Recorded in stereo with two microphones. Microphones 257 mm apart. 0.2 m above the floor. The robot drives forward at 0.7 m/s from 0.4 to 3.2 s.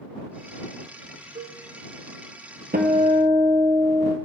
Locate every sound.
1.4 s a cowbell: 25° right (ahead or behind), 0.9 m; by 1.6 s 20° right (ahead or behind), 1.1 m
2.7 s a guitar: 40° right (ahead or behind), 0.9 m; by 4.2 s 30° right (ahead or behind), 1.2 m